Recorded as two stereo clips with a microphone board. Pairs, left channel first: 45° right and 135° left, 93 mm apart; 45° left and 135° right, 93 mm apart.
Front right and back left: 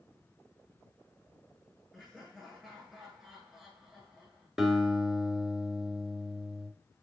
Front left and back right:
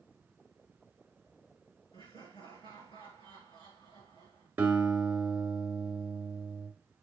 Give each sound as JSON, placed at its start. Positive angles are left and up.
{"t": 1.9, "sound": "laughter", "azimuth_deg": 50, "distance_m": 6.0}
{"t": 4.6, "sound": "a guitar", "azimuth_deg": -145, "distance_m": 1.5}